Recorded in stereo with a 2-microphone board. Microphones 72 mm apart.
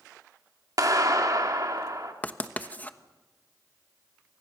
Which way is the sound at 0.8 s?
55° right (ahead or behind).